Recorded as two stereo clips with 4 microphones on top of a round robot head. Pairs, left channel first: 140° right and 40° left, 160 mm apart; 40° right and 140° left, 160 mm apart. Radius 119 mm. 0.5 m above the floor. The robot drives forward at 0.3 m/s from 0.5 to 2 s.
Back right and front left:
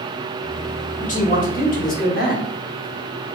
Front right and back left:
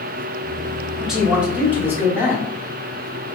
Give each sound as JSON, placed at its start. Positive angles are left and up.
{"t": 1.0, "sound": "a man speaking", "azimuth_deg": -135, "distance_m": 1.1}